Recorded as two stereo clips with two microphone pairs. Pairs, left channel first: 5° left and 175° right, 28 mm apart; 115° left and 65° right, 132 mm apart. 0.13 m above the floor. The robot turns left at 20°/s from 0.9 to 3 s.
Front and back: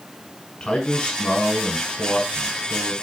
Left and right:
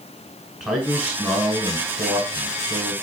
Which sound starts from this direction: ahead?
A man speaking, at 0.6 s.